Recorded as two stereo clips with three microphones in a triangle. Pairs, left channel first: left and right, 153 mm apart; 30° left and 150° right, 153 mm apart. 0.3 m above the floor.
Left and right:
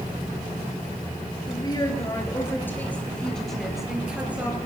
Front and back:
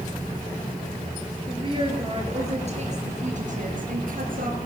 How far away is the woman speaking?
About 5.5 m.